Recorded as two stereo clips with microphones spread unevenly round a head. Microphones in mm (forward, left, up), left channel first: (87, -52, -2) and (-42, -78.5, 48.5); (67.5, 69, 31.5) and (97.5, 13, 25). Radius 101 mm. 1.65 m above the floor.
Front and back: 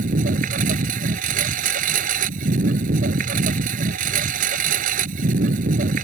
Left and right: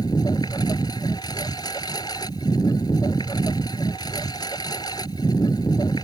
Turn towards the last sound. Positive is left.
turn(degrees=-175)